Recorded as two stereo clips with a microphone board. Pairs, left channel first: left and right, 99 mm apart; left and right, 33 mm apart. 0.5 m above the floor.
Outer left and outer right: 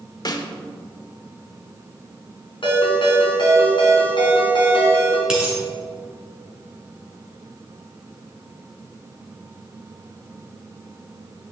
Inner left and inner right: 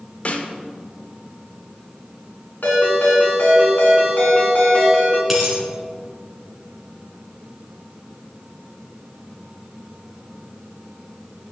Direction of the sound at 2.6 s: 55° left (ahead or behind).